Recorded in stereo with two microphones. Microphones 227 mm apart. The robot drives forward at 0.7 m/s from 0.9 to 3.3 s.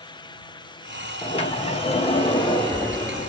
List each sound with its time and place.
1.2 s a sliding door: 25° left (ahead or behind), 0.9 m; by 3.3 s 15° left (ahead or behind), 1.4 m